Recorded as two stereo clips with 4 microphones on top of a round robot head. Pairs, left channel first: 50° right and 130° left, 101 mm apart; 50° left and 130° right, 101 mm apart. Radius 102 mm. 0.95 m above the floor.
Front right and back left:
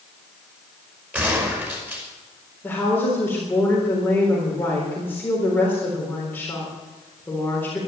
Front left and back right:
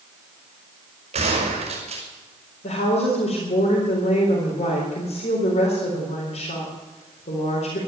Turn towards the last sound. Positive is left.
turn(degrees=30)